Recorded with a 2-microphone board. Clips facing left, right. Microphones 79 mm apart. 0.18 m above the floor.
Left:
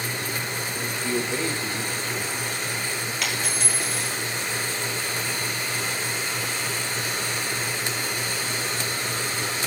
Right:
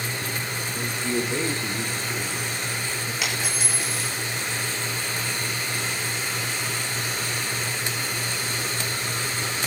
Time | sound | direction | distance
0.7 | a man speaking | 15° right (ahead or behind) | 3.5 m
3.2 | a dropped coin | 10° right (ahead or behind) | 10 m